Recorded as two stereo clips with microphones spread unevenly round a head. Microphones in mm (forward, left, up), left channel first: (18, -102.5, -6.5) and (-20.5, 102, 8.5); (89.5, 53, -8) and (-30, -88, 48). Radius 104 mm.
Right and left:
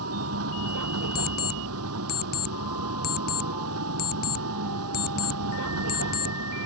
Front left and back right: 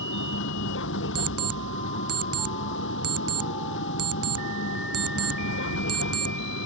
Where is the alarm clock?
130° right.